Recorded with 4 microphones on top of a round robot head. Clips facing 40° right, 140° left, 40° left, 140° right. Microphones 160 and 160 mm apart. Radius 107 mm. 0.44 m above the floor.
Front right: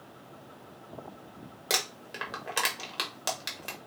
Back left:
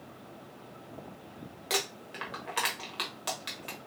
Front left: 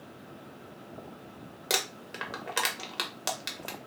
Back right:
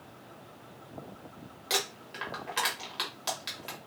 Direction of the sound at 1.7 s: 5° left.